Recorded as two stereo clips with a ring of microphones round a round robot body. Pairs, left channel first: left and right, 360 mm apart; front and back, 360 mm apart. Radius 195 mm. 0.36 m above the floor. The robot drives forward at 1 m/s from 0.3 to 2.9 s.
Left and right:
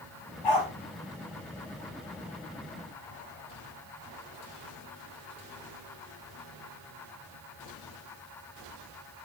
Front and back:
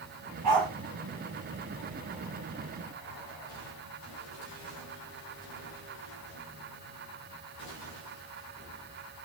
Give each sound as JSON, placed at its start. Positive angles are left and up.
{"t": 0.4, "sound": "a dog barking", "azimuth_deg": 125, "distance_m": 4.0}